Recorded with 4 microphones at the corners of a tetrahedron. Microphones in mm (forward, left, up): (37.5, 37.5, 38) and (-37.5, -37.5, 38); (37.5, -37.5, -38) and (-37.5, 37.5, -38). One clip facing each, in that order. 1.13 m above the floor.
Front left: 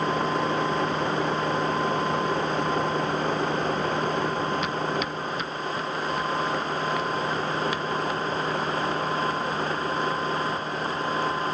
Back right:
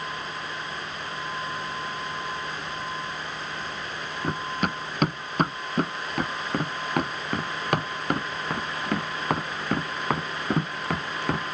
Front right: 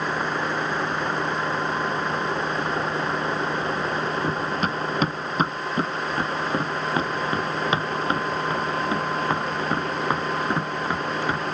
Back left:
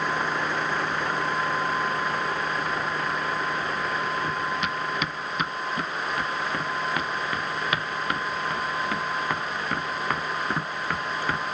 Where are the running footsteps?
95° right; by 11.6 s 120° right.